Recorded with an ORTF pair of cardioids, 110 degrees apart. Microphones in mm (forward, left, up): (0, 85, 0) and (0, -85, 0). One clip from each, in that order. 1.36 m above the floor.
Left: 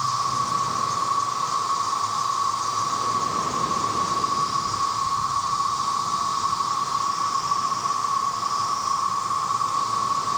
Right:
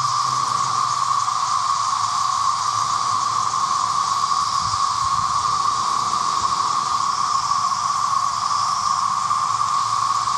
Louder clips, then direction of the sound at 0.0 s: Right 4 dB; 70° right.